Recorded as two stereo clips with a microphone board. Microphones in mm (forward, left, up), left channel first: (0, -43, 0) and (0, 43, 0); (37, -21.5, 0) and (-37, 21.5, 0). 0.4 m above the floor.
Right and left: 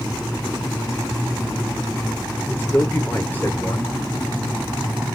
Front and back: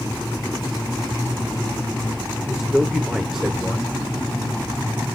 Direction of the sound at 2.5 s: 130° right.